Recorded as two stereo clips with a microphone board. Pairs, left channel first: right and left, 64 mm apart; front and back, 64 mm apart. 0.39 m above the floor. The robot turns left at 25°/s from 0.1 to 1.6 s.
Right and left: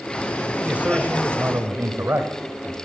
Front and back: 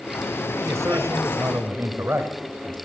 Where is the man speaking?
160° left, 1.7 m; by 2.8 s 135° left, 1.7 m.